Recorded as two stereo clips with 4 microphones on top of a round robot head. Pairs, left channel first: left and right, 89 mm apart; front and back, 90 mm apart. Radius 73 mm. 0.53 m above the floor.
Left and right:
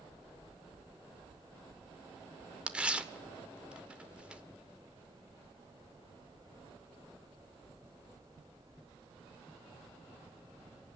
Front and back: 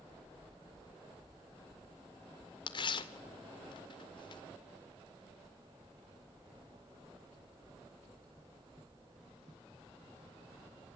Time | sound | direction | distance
2.7 | tearing paper | 15° right | 2.5 m